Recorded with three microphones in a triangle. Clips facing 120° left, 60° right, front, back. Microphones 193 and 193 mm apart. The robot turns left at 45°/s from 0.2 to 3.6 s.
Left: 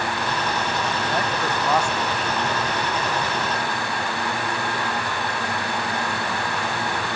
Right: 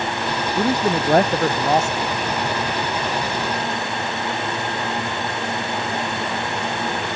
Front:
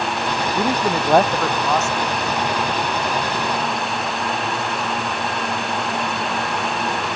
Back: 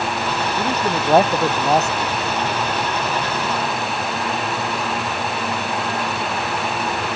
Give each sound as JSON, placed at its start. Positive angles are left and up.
{"t": 0.6, "sound": "a man speaking", "azimuth_deg": -70}